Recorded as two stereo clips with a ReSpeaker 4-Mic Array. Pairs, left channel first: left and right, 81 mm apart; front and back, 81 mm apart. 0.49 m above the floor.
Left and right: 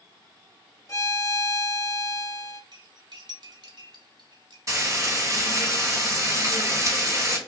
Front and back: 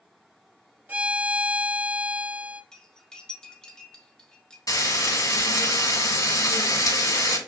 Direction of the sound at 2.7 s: 80° right.